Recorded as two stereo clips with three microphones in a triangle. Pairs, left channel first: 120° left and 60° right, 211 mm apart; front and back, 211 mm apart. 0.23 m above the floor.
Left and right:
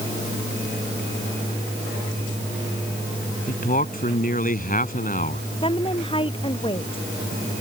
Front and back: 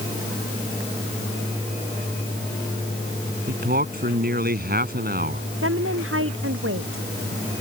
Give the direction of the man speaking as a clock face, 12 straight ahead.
7 o'clock.